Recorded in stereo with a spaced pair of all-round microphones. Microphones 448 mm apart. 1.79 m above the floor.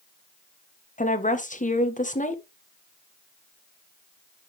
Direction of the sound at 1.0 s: 15° left (ahead or behind).